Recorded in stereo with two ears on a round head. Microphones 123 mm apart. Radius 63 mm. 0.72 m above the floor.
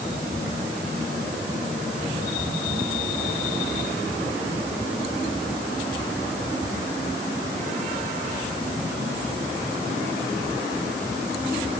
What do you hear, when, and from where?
Only background noise.